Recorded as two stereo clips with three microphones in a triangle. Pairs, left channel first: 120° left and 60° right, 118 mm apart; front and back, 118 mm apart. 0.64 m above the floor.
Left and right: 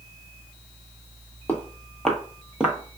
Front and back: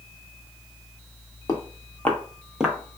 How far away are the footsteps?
About 0.8 m.